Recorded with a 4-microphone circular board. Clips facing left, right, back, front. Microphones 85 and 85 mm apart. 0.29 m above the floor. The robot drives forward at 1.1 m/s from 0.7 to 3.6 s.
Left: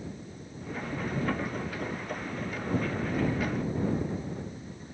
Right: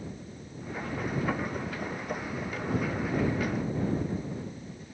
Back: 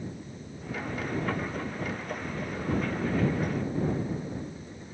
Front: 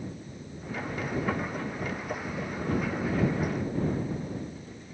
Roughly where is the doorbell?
No doorbell in this recording.